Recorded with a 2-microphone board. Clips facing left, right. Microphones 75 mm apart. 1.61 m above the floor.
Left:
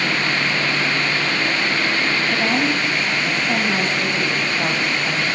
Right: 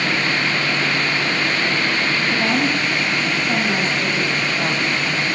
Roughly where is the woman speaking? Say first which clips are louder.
Right 1 dB; centre.